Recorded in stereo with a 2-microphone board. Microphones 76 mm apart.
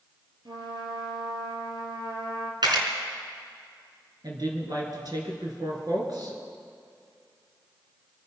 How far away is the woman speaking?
About 4 m.